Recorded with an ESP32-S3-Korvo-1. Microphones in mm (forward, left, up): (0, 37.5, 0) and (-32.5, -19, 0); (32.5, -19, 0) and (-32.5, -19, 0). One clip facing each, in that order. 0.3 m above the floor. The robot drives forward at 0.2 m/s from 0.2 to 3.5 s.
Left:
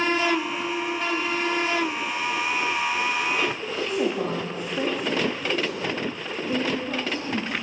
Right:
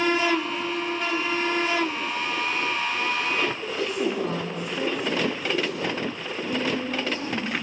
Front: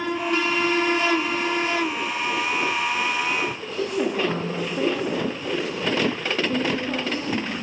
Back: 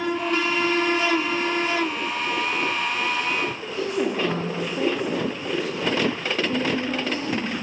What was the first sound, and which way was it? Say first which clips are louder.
A woman speaking: left 2 dB, even; 115° left.